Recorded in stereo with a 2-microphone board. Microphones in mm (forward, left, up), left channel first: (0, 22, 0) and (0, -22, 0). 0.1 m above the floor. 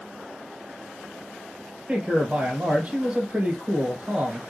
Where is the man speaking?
25° right (ahead or behind), 2.5 m.